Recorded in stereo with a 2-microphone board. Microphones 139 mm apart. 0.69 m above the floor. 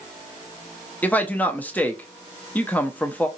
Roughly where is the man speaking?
Centre.